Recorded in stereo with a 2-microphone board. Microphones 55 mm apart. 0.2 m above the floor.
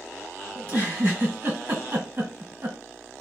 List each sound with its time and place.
0.6 s a giggle: 45° right (ahead or behind), 2.0 m